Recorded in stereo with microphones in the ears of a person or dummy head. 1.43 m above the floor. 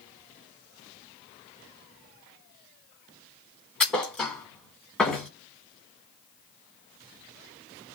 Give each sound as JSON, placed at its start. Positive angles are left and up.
{"t": 3.8, "sound": "a thud", "side_deg": 5, "distance_m": 1.3}